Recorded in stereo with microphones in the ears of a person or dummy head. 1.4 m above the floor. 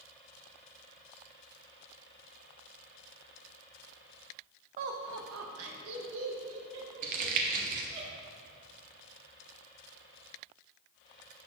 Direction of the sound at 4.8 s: 40° right (ahead or behind).